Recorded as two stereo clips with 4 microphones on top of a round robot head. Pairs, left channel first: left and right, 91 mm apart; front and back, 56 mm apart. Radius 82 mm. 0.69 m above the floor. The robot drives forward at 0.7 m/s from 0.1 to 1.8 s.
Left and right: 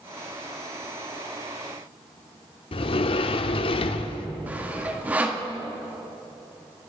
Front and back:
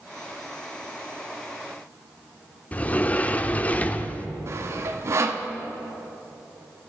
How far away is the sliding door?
About 0.6 m.